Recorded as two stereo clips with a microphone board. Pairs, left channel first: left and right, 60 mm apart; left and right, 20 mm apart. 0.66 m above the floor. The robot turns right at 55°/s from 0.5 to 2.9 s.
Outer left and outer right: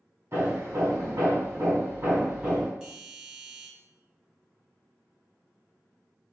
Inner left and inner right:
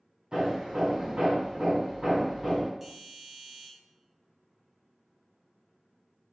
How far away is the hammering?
About 1.7 m.